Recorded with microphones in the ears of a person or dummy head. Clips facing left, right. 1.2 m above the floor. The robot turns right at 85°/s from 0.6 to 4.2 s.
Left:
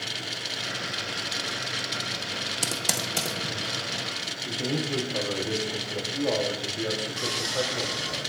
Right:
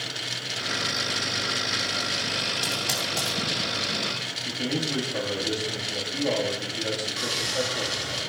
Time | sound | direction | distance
2.6 | typing on a keyboard | 65° left (ahead or behind) | 0.9 m
4.5 | a man speaking | 35° right (ahead or behind) | 1.8 m
7.2 | sawing | 40° right (ahead or behind) | 2.5 m